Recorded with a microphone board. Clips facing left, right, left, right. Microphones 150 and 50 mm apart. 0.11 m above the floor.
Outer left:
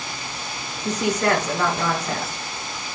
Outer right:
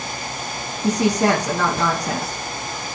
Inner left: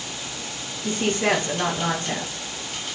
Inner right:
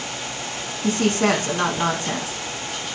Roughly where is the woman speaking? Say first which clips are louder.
Outer right 4 dB, inner right 3 dB; right.